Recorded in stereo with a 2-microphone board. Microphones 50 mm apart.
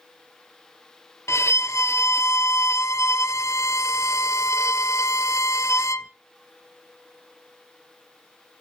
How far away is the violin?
About 0.5 m.